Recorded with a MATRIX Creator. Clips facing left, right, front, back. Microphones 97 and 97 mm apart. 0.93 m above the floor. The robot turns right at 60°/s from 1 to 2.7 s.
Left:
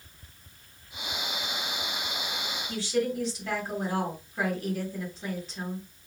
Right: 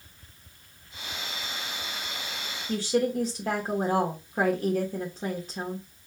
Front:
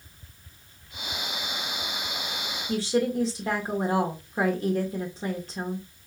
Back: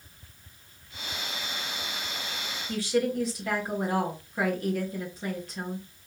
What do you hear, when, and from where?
2.7 s a woman speaking: 60° right, 1.2 m; by 5.9 s 55° right, 1.2 m